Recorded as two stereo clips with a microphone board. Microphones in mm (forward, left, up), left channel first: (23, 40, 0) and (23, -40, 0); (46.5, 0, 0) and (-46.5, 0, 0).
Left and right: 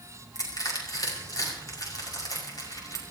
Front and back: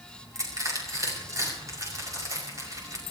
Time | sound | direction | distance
0.3 | crushing | 130° left | 5.5 m